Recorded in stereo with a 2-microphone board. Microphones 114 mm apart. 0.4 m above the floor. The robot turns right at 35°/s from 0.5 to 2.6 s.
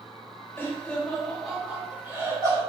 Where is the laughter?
20° left (ahead or behind), 1.3 m; by 2.6 s 30° right (ahead or behind), 1.3 m.